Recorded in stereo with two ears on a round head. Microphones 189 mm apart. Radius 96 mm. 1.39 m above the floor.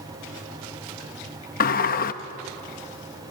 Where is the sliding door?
45° left (ahead or behind), 0.8 m.